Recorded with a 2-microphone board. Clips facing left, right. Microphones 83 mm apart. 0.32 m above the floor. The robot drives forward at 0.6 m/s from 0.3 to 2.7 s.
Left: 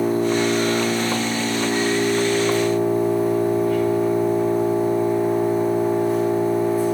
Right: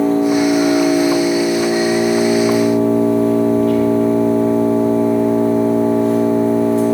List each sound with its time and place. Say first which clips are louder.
0.0 s an engine running: right 6 dB; 80° right, 3.5 m; by 6.9 s 75° right (ahead or behind), 3.5 m